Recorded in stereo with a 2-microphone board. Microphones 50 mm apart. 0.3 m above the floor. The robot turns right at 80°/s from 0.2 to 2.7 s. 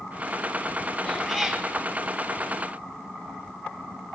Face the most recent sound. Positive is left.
turn(degrees=-75)